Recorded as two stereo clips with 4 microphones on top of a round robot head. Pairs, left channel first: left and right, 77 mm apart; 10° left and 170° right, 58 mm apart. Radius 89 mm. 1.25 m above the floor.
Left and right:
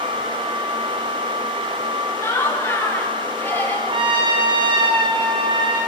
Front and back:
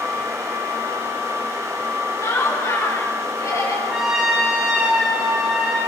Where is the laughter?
35° left, 7.5 m; by 3.8 s 25° left, 8.5 m.